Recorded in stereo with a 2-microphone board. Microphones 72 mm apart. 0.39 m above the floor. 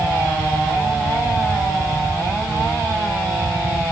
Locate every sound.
Only background noise.